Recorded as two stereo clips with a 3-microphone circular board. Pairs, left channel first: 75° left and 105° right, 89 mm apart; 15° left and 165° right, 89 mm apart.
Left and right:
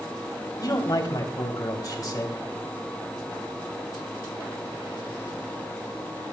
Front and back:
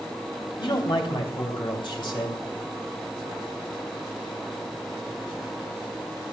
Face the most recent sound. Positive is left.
turn(degrees=35)